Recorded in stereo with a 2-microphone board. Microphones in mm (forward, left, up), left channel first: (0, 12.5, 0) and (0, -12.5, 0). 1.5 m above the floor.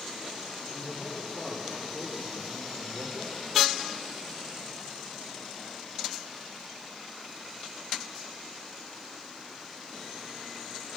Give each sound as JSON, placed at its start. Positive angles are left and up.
{"t": 0.7, "sound": "a man speaking", "side_deg": 75, "distance_m": 4.5}